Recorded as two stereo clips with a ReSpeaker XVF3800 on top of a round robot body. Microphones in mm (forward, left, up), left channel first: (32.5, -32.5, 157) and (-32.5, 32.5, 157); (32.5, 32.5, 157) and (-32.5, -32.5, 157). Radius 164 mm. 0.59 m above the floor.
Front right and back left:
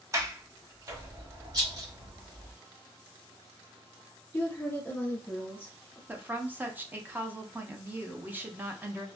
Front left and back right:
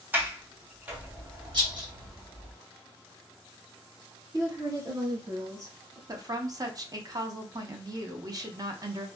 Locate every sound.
0.1 s a sliding door: 165° left, 1.1 m
1.5 s a rattle: 175° right, 1.5 m
4.3 s a woman speaking: 105° right, 1.1 m
6.1 s a woman speaking: 160° right, 0.9 m